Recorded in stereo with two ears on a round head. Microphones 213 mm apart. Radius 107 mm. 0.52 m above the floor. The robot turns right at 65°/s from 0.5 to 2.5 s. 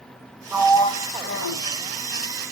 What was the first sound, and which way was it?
A sliding door, straight ahead.